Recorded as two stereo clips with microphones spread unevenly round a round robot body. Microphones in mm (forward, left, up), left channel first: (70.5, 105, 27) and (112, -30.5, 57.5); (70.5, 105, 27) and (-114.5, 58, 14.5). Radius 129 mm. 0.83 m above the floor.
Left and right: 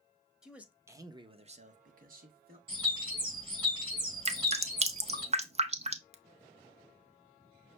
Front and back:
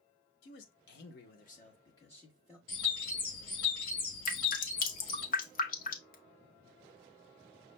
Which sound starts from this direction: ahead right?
Dripping, at 4.2 s.